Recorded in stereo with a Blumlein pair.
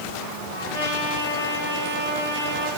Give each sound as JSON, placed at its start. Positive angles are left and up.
{"t": 0.5, "sound": "a trumpet", "azimuth_deg": 70, "distance_m": 3.0}